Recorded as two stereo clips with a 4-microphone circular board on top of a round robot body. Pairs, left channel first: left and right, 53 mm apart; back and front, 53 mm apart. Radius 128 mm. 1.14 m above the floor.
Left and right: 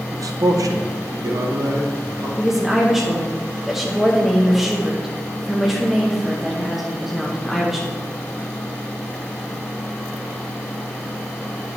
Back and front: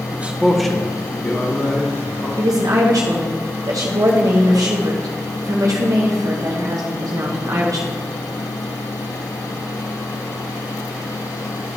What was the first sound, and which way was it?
A man speaking, 60° right.